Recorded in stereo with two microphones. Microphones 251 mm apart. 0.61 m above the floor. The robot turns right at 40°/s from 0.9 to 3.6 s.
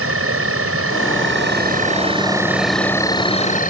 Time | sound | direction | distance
0.0 | an insect | 70° right | ?